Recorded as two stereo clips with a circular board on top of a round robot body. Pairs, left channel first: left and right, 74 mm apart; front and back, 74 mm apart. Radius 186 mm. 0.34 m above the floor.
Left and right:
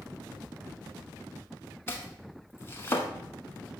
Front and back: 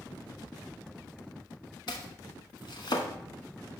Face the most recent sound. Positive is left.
turn(degrees=30)